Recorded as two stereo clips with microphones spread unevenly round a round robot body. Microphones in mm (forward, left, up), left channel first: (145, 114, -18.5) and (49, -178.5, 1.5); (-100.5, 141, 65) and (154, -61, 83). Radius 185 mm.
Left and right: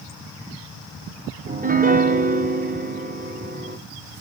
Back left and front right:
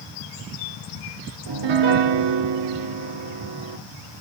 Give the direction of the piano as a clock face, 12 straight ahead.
1 o'clock.